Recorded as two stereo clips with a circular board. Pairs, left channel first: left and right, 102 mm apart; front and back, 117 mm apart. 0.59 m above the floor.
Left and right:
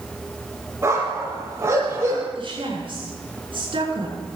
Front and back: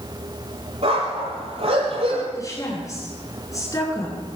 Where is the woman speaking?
60° right, 9 m.